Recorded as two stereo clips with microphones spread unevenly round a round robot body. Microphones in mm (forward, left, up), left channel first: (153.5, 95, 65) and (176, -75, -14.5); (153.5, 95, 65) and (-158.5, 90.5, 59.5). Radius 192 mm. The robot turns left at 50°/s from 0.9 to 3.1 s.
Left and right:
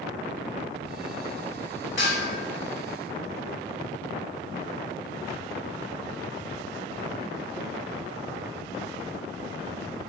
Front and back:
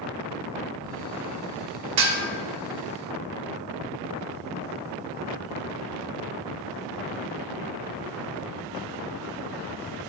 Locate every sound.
2.0 s dishes clattering: 155° left, 1.7 m; by 2.2 s 145° left, 1.7 m